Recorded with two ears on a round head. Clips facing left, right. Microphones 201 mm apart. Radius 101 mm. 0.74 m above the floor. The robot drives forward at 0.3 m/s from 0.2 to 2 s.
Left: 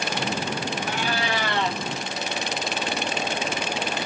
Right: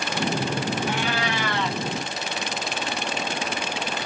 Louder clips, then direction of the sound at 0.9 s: Right 1 dB; 35° left (ahead or behind).